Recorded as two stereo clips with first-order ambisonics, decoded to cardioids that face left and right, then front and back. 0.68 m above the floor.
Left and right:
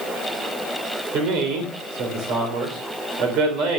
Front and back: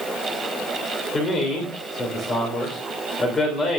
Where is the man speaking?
65° right, 3 m.